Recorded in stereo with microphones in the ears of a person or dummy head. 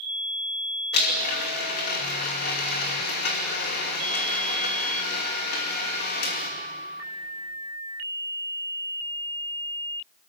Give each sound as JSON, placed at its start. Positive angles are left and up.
{"t": 0.9, "sound": "a blender", "side_deg": 50, "distance_m": 2.5}